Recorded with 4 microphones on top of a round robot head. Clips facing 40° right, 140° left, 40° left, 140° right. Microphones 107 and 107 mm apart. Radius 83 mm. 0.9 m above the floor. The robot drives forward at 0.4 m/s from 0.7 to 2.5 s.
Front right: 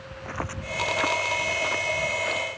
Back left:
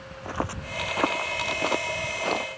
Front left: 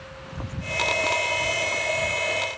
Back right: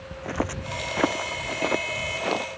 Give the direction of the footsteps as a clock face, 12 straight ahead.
5 o'clock.